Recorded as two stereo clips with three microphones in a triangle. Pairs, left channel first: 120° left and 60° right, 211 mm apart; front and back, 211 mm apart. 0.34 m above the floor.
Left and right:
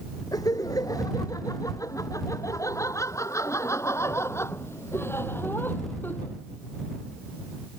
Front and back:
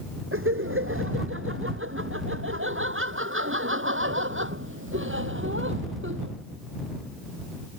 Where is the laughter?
170° right; by 6.3 s 160° right.